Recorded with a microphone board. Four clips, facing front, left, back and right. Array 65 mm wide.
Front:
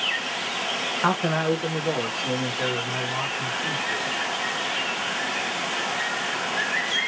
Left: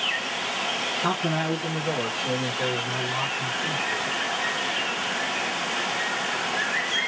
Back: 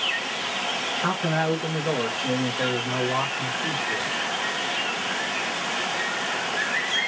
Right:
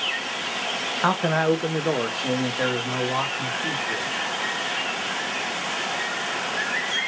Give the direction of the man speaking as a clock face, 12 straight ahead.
2 o'clock.